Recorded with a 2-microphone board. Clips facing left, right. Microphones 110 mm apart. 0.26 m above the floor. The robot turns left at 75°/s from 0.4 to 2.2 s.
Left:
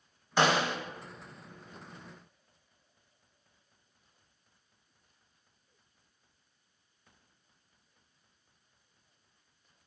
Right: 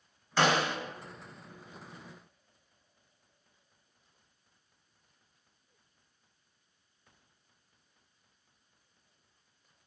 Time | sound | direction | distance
0.4 | a snare drum | 20° left (ahead or behind) | 0.9 m